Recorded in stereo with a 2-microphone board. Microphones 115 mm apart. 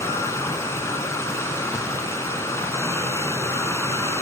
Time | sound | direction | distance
0.0 | running water | 25° left (ahead or behind) | 1.6 m